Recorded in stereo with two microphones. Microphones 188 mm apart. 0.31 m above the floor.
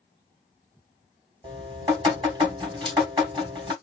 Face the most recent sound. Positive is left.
turn(degrees=-25)  # may be behind; listen again after turning